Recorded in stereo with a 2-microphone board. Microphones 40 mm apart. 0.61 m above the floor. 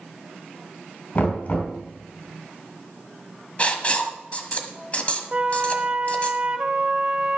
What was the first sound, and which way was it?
Knocking, 40° left (ahead or behind).